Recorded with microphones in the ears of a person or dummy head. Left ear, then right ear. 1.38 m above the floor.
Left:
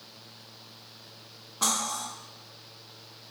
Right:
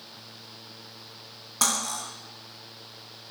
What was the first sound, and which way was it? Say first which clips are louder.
Cutlery clinking: right 2 dB; 55° right (ahead or behind).